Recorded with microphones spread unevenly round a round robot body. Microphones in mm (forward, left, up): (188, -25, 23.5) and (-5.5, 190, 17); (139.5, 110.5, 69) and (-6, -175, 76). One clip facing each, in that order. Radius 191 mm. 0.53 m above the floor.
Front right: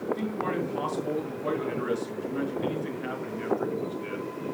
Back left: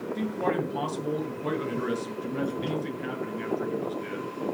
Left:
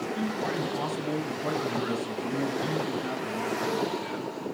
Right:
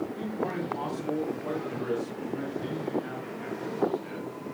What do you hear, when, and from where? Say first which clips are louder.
0.1 s a man speaking: back left 2 dB, left 2 dB; 90° left, 7.5 m